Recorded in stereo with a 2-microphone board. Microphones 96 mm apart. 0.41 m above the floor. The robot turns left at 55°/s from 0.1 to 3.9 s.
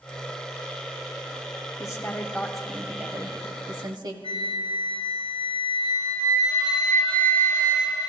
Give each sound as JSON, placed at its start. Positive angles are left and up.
{"t": 1.8, "sound": "a woman speaking", "azimuth_deg": 50, "distance_m": 1.6}
{"t": 4.2, "sound": "a flute", "side_deg": -70, "distance_m": 3.0}